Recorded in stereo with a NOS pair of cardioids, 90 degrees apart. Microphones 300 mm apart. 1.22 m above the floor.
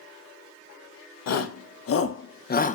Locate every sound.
1.3 s a shout: 60° left, 2 m; by 2.7 s 25° left, 1.3 m